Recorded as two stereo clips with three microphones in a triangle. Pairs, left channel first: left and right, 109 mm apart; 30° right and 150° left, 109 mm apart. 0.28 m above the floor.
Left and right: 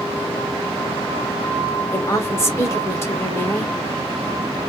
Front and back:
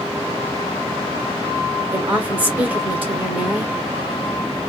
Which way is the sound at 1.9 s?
95° left.